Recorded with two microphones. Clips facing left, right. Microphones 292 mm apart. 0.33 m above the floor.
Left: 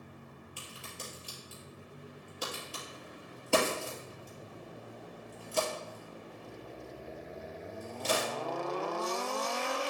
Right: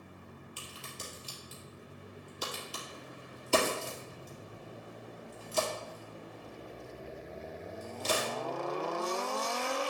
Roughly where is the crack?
Left.